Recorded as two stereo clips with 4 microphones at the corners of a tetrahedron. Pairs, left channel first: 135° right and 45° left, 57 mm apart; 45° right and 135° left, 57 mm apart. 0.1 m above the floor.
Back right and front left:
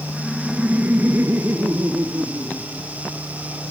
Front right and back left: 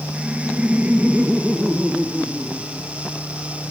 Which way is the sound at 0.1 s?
150° left.